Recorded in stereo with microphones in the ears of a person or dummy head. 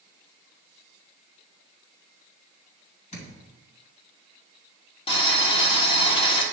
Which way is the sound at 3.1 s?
40° left (ahead or behind).